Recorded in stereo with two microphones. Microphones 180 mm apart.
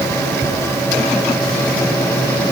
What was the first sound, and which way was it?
Only background noise.